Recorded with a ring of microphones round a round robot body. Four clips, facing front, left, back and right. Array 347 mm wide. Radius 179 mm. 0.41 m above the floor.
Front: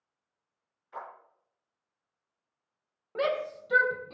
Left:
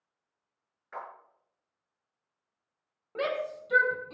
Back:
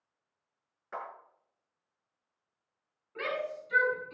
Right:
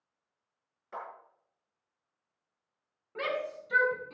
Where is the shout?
25° left, 3 m.